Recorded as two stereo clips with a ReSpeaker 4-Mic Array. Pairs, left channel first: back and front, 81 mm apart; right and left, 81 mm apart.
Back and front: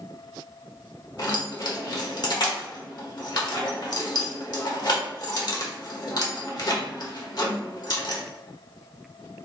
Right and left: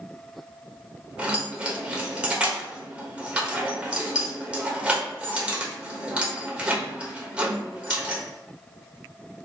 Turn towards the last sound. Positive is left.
turn(degrees=165)